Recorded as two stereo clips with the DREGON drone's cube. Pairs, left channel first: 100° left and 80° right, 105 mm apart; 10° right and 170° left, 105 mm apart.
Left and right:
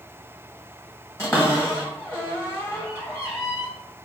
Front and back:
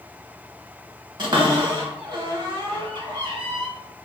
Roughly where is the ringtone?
I don't hear a ringtone.